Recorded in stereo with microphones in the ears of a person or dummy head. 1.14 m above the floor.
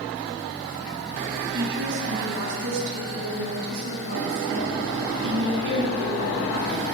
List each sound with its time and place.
1.5 s a woman speaking: 70° right (ahead or behind), 7 m; by 6.8 s 65° right (ahead or behind), 9.5 m